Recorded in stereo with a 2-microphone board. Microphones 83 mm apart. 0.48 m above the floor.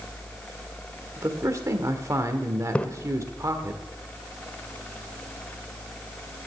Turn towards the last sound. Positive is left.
turn(degrees=15)  # may be behind; listen again after turning